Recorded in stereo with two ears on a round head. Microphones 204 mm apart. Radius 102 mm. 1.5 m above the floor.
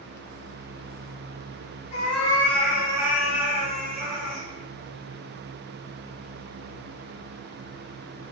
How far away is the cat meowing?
About 1.3 m.